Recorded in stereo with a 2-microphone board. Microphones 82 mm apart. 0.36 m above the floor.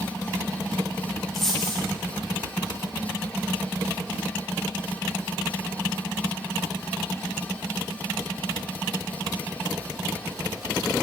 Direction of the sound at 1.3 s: Centre (ahead or behind).